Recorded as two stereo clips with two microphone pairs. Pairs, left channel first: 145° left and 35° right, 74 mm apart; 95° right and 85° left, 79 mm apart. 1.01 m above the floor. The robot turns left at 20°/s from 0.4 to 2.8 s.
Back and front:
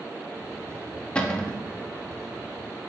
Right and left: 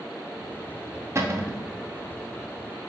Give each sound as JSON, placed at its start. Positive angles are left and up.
{"t": 1.1, "sound": "a cupboard door", "azimuth_deg": 85, "distance_m": 0.6}